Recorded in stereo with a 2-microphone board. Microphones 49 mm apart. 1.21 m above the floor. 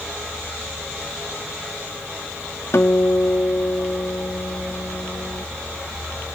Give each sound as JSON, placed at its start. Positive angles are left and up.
{"t": 2.7, "sound": "a guitar", "side_deg": 75}